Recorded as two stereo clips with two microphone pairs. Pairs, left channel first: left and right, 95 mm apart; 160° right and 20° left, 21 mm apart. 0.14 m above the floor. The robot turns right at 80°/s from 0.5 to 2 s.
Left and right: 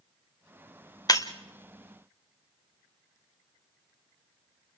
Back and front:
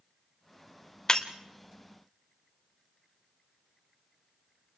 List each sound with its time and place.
1.1 s breaking glass: 140° left, 1.8 m; by 1.3 s 155° left, 1.8 m